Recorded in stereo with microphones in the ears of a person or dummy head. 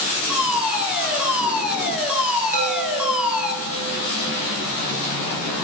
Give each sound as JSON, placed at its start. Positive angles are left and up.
{"t": 0.3, "sound": "a fire alarm", "side_deg": -10, "distance_m": 7.5}
{"t": 2.5, "sound": "a chime", "side_deg": -45, "distance_m": 8.5}